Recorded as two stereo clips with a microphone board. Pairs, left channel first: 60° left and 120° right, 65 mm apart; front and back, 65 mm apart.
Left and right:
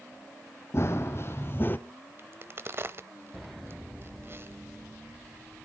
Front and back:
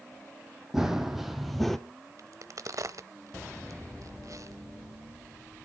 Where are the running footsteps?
100° left, 1.4 m; by 1.8 s 80° left, 0.8 m.